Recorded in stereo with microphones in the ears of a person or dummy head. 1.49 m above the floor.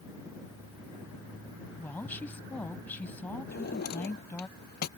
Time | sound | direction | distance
1.8 | a woman speaking | 10° left (ahead or behind) | ?
3.5 | a drawer | 55° left (ahead or behind) | ?